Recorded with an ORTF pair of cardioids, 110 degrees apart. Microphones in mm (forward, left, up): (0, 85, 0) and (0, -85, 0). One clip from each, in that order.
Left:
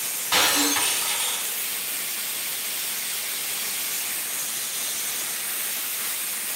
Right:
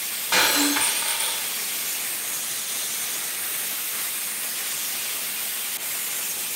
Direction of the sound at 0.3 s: Straight ahead.